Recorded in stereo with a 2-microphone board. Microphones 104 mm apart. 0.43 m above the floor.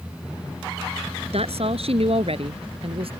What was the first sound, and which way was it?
A woman speaking, 75° right (ahead or behind).